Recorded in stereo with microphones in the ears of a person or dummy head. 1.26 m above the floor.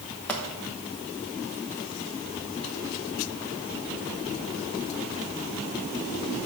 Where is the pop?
5° left (ahead or behind), 1.1 m.